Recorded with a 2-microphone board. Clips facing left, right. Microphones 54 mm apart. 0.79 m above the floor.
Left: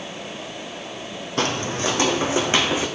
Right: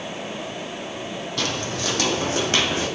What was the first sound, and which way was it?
Footsteps, 35° left (ahead or behind).